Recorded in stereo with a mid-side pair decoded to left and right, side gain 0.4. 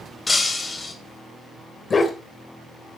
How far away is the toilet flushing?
I don't hear a toilet flushing.